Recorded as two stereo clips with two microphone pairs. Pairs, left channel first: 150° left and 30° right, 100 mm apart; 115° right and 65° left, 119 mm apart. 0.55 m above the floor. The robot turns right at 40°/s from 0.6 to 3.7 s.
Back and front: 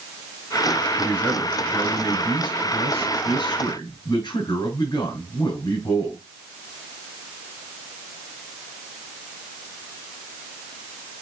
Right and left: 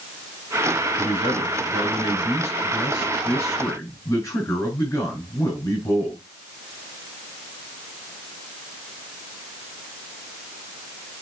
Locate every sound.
1.0 s a man speaking: 80° left, 4 m; by 6.2 s 170° right, 4 m